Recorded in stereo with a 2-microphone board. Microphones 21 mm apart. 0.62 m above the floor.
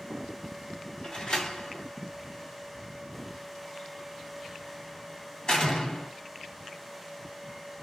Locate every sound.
1.0 s a door slam: 35° left (ahead or behind), 1.5 m